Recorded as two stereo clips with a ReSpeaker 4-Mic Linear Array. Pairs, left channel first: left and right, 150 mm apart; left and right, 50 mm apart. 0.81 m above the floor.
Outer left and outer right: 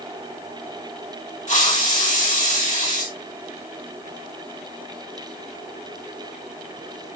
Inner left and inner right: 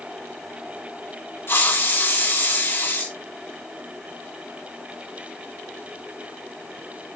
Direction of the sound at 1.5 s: 55° left (ahead or behind).